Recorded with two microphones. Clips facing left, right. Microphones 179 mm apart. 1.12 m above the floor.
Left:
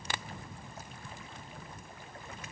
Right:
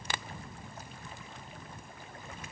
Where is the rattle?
I don't hear a rattle.